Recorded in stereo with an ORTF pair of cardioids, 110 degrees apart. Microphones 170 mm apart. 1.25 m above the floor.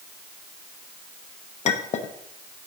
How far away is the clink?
About 0.7 m.